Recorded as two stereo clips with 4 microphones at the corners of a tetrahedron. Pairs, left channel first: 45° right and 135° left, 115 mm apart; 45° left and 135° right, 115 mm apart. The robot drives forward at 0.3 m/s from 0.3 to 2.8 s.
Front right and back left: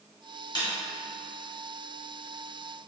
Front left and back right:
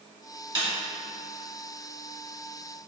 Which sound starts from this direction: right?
A snare drum, at 0.6 s.